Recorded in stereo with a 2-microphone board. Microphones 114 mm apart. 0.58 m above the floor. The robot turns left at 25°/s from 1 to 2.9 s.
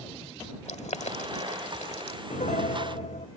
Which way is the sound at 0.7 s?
80° left.